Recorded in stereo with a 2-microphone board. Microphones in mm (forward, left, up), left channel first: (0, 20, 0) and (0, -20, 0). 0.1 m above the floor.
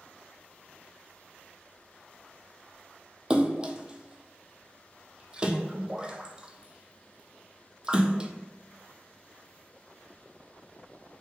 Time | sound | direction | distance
3.3 | a splash | 20° right (ahead or behind) | 0.6 m